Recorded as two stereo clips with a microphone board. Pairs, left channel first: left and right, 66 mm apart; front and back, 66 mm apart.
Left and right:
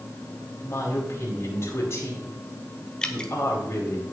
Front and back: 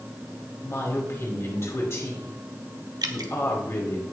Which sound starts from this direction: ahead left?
A woman speaking, at 0.6 s.